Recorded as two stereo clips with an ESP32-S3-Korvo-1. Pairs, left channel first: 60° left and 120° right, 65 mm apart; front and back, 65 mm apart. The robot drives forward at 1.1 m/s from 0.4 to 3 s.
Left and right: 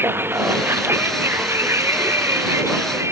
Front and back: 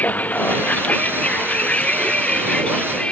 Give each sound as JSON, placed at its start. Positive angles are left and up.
{"t": 0.0, "sound": "a vehicle", "azimuth_deg": -65}